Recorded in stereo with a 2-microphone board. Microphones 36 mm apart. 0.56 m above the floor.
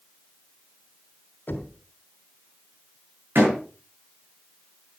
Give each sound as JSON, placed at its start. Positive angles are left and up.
{"t": 1.5, "sound": "knocking", "side_deg": 65, "distance_m": 2.5}
{"t": 3.4, "sound": "a door slam", "side_deg": -85, "distance_m": 7.5}